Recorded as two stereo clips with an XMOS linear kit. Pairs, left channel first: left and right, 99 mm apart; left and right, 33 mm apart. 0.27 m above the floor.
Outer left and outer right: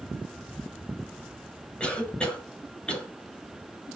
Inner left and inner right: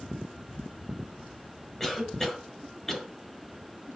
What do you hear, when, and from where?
1.8 s a cough: 10° left (ahead or behind), 1.9 m